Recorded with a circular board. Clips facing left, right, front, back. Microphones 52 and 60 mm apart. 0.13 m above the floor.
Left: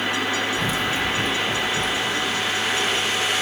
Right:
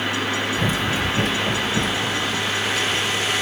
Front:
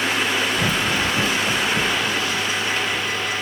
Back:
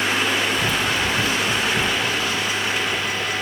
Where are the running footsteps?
35° right, 0.8 m; by 3.3 s 100° right, 2.5 m.